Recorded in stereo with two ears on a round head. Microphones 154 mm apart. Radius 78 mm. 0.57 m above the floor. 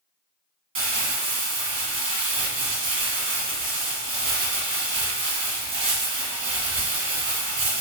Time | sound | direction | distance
0.8 | crumpling | 35° right (ahead or behind) | 1.0 m